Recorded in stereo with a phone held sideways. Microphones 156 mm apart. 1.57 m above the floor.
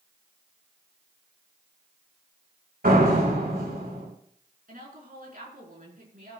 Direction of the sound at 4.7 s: 65° right (ahead or behind).